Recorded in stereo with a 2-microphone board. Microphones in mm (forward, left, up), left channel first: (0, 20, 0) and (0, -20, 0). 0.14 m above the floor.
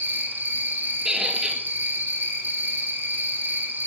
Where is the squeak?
10° right (ahead or behind), 1.1 m.